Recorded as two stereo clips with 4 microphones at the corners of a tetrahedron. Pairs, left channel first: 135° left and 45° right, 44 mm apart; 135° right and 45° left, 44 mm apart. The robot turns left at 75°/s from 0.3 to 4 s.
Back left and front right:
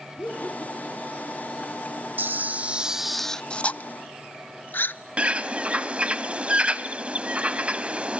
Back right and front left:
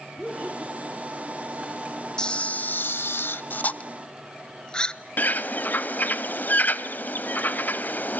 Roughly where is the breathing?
No breathing in this recording.